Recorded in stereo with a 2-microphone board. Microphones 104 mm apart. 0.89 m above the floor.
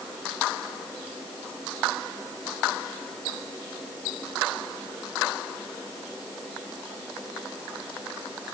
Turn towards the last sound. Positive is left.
No sound to turn to.